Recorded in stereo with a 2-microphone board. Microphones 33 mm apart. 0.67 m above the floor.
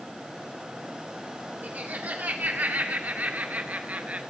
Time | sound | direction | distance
1.6 | laughter | 55° right (ahead or behind) | 2 m